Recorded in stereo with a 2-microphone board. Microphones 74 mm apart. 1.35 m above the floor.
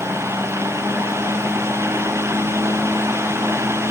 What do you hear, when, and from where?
Only background noise.